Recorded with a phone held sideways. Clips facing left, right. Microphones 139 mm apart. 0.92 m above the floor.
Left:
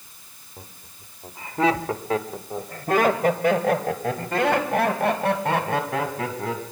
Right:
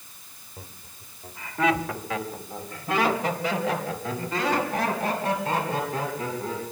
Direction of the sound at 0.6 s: 10° left (ahead or behind).